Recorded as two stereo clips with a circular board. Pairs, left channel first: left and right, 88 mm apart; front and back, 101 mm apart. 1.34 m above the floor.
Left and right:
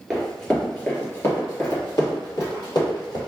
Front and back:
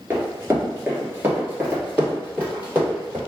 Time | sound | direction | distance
0.1 | running footsteps | 175° right | 1.3 m